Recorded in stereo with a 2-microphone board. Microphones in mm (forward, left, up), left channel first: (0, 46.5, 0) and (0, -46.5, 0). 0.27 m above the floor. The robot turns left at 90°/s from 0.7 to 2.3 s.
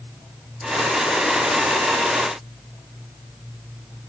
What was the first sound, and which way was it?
Only background noise.